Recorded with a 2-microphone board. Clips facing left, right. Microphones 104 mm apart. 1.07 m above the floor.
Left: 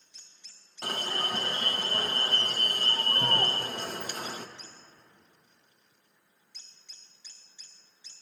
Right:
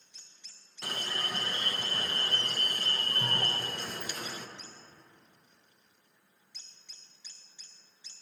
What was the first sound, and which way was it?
An alarm, 45° left (ahead or behind).